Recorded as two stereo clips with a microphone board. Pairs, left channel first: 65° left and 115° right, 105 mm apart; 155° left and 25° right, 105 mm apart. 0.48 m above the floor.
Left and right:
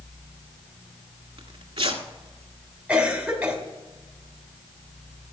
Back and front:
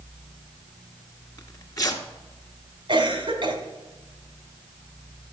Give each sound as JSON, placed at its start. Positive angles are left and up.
{"t": 1.4, "sound": "tearing paper", "azimuth_deg": -150, "distance_m": 1.2}
{"t": 2.9, "sound": "a cough", "azimuth_deg": -35, "distance_m": 2.0}